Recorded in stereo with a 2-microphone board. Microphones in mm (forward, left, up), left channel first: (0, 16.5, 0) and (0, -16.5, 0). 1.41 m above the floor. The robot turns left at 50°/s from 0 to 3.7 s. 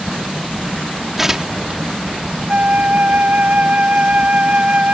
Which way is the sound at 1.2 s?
10° right (ahead or behind).